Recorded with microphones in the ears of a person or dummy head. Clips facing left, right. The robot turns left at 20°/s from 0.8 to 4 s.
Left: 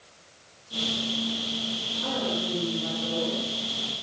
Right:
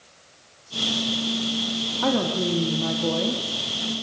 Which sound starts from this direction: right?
A woman speaking, at 2.0 s.